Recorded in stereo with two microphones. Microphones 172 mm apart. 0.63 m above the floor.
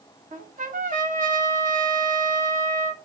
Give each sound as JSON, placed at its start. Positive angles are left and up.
{"t": 0.3, "sound": "a trumpet", "side_deg": -50, "distance_m": 0.8}